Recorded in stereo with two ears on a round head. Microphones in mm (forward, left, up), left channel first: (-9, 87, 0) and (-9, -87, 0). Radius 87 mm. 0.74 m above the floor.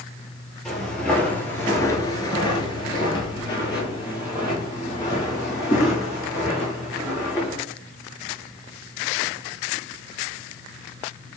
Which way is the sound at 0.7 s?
Centre (ahead or behind).